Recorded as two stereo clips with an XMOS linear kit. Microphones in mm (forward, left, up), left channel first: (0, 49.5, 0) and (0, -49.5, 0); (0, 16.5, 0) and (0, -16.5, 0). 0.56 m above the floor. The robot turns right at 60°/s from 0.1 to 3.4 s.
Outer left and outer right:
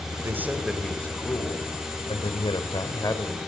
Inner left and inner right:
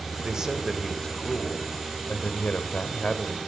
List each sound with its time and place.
0.2 s a man speaking: 30° right, 2.5 m; by 3.4 s 160° left, 2.5 m